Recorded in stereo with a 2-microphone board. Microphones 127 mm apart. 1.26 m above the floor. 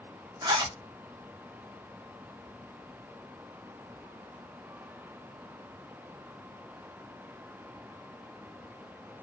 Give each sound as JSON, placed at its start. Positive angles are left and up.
{"t": 0.4, "sound": "a zipper", "side_deg": -45, "distance_m": 1.5}